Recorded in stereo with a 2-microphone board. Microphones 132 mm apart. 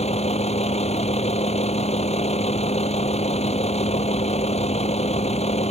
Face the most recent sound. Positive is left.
turn(degrees=55)  # may be behind; listen again after turning